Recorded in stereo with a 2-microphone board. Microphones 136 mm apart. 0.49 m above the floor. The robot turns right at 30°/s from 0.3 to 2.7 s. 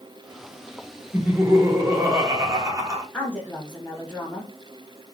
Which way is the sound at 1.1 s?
15° right (ahead or behind).